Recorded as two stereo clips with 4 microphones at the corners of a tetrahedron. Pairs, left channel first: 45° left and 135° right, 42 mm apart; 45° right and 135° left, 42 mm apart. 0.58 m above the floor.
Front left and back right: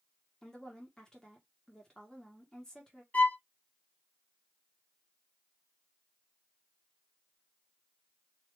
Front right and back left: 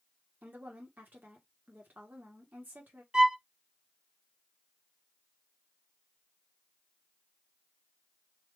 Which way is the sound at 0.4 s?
110° left.